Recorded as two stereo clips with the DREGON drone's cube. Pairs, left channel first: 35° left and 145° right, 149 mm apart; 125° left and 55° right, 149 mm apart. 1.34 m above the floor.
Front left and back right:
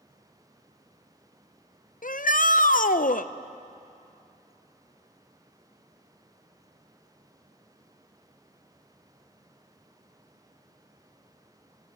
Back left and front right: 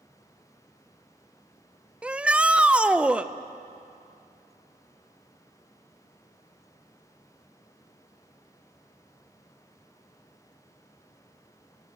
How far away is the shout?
About 0.6 m.